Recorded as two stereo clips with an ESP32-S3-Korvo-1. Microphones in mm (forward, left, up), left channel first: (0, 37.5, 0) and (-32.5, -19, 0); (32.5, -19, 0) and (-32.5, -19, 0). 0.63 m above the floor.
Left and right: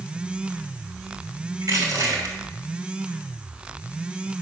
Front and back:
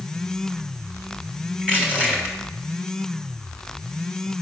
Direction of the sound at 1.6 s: 115° right.